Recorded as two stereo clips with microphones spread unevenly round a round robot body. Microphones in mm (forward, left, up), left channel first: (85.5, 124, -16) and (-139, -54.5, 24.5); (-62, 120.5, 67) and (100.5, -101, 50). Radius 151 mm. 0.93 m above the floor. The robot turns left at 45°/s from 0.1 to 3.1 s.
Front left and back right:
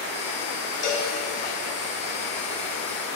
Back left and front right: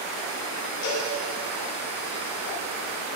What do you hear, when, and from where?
0.8 s a cowbell: 90° left, 5 m; by 1.1 s 80° left, 5 m